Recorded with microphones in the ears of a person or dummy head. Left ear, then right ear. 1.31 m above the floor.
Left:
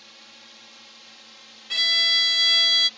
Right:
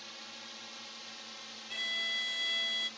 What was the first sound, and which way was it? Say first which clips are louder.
A drone: even; 5° right (ahead or behind).